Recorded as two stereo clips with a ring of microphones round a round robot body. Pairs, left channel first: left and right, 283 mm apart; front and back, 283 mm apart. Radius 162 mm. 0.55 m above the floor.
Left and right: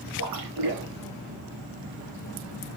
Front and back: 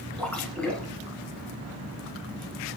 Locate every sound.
0.2 s a splash: 85° right, 1.2 m